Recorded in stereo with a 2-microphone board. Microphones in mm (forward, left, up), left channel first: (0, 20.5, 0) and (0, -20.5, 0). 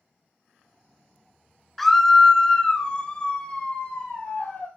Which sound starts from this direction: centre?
A scream, at 1.8 s.